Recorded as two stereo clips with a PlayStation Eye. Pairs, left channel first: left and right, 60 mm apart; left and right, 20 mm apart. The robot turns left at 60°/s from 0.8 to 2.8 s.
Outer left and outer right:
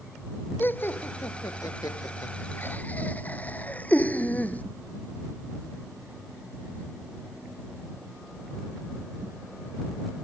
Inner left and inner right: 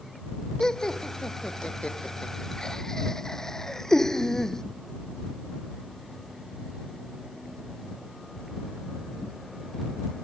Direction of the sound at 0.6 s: 30° left (ahead or behind).